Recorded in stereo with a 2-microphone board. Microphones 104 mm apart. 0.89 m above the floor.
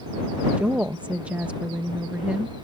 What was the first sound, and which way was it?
A woman speaking, 15° right (ahead or behind).